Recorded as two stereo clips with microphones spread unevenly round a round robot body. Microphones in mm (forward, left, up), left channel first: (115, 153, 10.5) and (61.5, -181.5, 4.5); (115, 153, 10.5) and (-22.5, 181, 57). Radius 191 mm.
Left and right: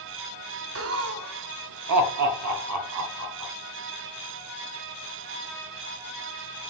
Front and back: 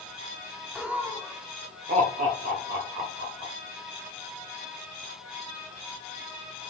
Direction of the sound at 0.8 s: 80° right.